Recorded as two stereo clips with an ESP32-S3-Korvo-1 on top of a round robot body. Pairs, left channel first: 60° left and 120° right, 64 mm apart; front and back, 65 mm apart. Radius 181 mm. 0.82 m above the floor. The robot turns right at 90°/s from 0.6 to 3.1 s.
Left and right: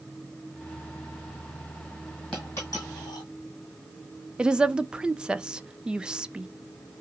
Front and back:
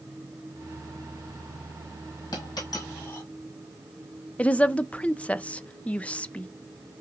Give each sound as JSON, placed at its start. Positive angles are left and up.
{"t": 2.3, "sound": "a dropped coin", "azimuth_deg": -20, "distance_m": 1.3}
{"t": 4.4, "sound": "a woman speaking", "azimuth_deg": -50, "distance_m": 0.6}